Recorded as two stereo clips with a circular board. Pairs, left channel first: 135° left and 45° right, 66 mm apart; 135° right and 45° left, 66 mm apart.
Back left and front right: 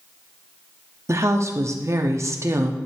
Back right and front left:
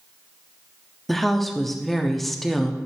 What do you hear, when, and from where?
1.1 s a woman speaking: 50° right, 0.8 m